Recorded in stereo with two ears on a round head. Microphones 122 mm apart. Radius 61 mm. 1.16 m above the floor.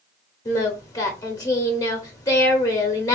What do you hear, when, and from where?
0.5 s singing: 25° left (ahead or behind), 0.9 m